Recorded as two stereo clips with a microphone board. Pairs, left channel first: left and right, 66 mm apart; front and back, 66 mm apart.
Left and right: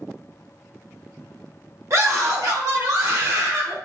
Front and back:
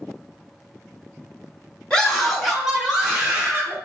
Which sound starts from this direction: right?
A scream, at 1.9 s.